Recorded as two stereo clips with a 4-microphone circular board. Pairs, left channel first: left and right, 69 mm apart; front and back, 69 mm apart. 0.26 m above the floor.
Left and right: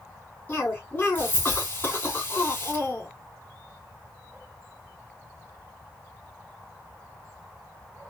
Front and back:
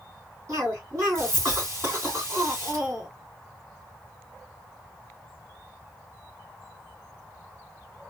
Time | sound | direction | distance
0.5 | a cough | 145° left | 3 m